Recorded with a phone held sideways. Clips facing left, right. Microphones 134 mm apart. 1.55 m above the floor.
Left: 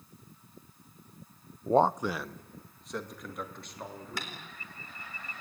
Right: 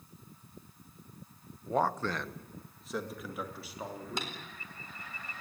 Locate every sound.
1.7 s a man speaking: 45° left (ahead or behind), 0.5 m; by 4.4 s 5° right (ahead or behind), 4.5 m
4.2 s tapping: 20° right (ahead or behind), 4 m